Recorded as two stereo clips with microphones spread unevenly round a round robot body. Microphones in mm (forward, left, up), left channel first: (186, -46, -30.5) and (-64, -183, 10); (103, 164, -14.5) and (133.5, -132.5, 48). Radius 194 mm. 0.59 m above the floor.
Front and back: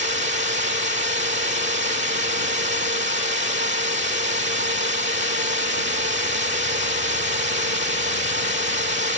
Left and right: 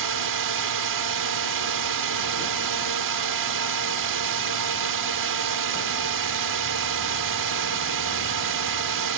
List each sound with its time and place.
0.0 s a drone: 100° right